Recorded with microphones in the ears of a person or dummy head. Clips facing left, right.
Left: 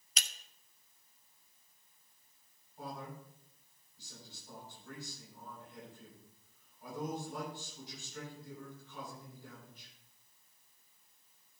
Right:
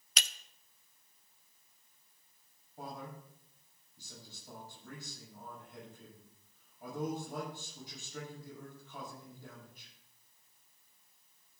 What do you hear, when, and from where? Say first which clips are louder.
0.2 s breaking glass: right 3 dB; 55° right (ahead or behind), 0.6 m
2.8 s a man speaking: even; 60° right (ahead or behind), 7 m